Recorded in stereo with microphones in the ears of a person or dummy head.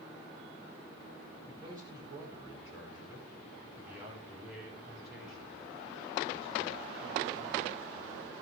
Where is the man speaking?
25° right (ahead or behind), 6 m; by 8.3 s 5° left (ahead or behind), 9 m.